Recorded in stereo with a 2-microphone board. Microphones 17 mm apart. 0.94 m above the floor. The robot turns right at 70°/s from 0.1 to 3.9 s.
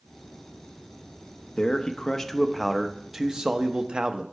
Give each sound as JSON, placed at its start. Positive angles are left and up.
{"t": 1.6, "sound": "a man speaking", "azimuth_deg": 105, "distance_m": 0.7}